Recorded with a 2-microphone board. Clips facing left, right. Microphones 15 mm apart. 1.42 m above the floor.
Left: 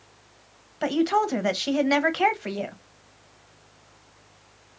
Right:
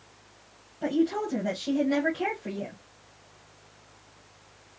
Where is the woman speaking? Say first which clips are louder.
Left 4 dB; 75° left (ahead or behind), 1.0 m.